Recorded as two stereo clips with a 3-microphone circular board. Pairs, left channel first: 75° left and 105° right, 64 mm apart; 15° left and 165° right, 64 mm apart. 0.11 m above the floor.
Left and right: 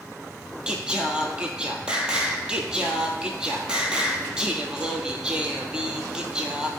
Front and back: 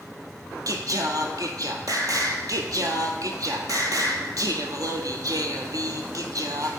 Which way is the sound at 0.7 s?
Straight behind.